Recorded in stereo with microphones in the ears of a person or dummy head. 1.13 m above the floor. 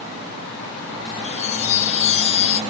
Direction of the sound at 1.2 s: 40° left (ahead or behind).